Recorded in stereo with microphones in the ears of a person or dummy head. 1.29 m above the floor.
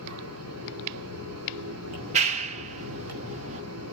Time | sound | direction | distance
0.0 | a fan | 75° right (ahead or behind) | 4 m
1.9 | a clap | 40° right (ahead or behind) | 1.3 m